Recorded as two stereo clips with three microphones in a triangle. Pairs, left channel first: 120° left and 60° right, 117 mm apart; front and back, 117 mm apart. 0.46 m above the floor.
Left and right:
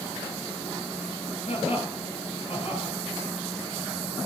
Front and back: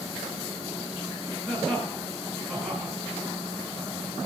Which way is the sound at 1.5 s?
90° left.